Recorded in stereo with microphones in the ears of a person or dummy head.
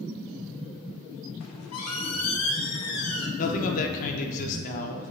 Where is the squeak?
80° left, 0.6 m.